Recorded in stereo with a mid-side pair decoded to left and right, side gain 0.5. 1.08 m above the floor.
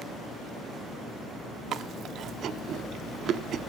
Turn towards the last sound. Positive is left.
turn(degrees=-60)